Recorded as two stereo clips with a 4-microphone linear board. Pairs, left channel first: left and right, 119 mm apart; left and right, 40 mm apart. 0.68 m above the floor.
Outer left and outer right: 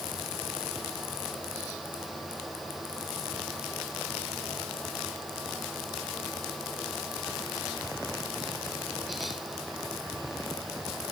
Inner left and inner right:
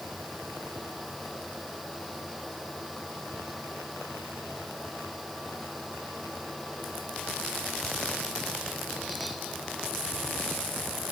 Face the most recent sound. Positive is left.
No sound to turn to.